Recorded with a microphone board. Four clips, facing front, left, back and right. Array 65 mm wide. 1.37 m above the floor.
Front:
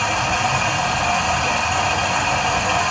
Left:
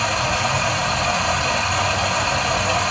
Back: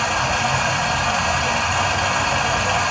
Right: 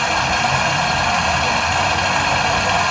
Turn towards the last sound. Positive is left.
turn(degrees=-85)